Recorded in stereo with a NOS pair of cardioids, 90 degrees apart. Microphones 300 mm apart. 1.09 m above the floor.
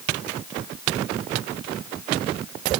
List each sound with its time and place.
Only background noise.